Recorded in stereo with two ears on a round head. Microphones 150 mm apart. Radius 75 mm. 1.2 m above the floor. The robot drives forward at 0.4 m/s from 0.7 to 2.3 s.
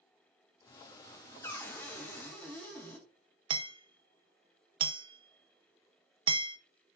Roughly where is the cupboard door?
Centre.